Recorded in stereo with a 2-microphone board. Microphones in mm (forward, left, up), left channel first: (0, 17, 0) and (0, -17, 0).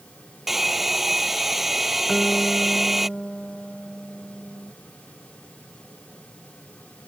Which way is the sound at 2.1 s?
15° left (ahead or behind).